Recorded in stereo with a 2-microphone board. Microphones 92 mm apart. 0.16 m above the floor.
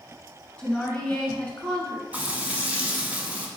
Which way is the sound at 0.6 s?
10° left (ahead or behind).